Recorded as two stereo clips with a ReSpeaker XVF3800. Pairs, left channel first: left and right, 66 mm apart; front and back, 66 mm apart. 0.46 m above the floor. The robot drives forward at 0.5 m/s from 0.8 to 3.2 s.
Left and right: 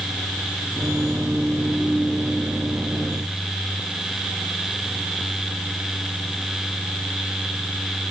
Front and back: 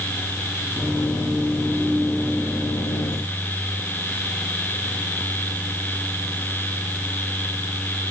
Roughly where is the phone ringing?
No phone ringing in this recording.